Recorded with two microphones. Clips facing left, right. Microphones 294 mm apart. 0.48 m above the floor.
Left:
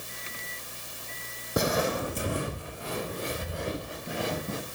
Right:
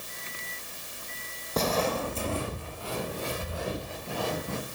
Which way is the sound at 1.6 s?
15° left (ahead or behind).